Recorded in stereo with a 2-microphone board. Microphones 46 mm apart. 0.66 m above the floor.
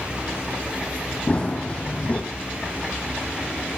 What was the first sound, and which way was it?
Running footsteps, 25° left (ahead or behind).